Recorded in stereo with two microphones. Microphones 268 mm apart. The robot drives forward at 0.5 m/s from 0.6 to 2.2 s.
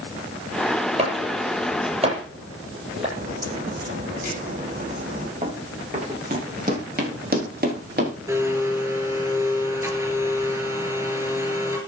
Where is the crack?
30° right (ahead or behind), 8.5 m.